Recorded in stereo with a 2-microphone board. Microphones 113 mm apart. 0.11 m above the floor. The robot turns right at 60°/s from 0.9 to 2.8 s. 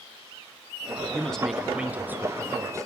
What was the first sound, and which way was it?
A man speaking, 10° left (ahead or behind).